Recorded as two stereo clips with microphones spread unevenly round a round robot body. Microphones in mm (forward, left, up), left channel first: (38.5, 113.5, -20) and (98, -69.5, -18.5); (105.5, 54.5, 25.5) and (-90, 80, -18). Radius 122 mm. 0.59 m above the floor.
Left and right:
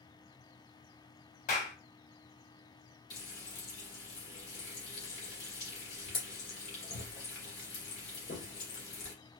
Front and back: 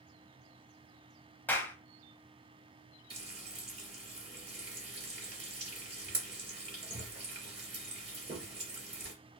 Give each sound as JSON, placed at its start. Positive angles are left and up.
{"t": 1.5, "sound": "a clap", "azimuth_deg": 85, "distance_m": 1.0}
{"t": 3.1, "sound": "frying", "azimuth_deg": 140, "distance_m": 1.8}